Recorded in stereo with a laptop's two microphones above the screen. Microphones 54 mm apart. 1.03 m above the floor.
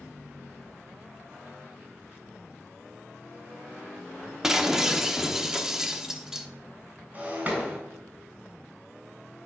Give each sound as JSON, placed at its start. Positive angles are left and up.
{"t": 4.4, "sound": "breaking glass", "side_deg": -10, "distance_m": 0.9}
{"t": 7.1, "sound": "breaking glass", "side_deg": -30, "distance_m": 3.0}